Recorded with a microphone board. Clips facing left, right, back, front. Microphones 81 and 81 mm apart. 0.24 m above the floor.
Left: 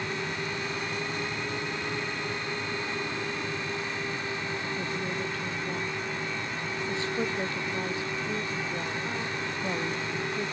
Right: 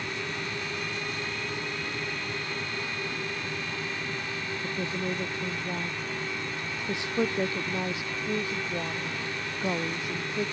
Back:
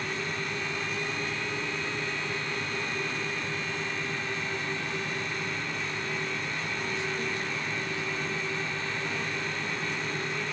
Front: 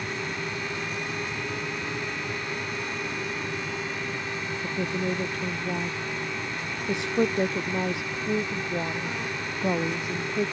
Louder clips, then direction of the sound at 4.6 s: Right 1 dB, front 5 dB; 15° right.